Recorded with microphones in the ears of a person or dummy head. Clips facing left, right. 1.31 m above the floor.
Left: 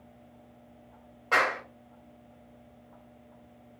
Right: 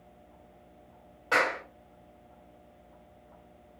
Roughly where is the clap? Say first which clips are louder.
Even; centre.